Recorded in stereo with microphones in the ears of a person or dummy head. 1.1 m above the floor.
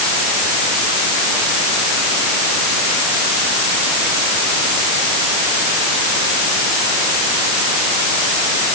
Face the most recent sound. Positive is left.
No sound to turn to.